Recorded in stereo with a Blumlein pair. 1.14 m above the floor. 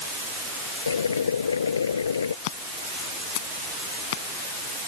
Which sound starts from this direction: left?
Boiling, at 0.9 s.